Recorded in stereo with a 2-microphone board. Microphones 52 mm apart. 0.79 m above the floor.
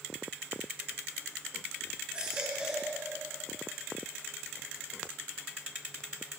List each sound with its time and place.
2.1 s a baby crying: 20° right (ahead or behind), 6.5 m